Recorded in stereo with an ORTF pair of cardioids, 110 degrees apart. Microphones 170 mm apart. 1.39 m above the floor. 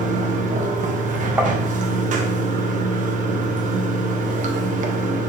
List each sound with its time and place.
0.0 s running water: 50° right, 1.7 m
1.4 s tapping: 10° right, 2 m